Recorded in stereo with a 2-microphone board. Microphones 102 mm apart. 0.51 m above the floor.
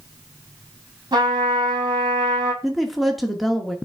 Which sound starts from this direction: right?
A trumpet, at 1.1 s.